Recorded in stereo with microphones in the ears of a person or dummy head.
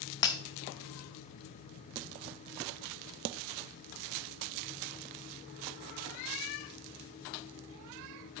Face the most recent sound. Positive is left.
turn(degrees=20)  # may be behind; listen again after turning